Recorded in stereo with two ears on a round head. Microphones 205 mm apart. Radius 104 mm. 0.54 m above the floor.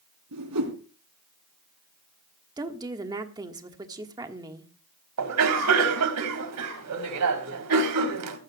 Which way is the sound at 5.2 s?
75° right (ahead or behind).